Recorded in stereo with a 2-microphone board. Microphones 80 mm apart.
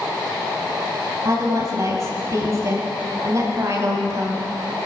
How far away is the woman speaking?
About 3 m.